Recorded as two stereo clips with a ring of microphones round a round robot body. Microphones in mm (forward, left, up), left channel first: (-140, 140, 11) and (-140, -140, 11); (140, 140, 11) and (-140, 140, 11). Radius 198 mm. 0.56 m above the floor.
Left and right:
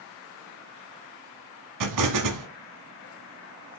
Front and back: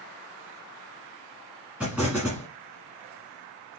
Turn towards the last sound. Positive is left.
turn(degrees=-95)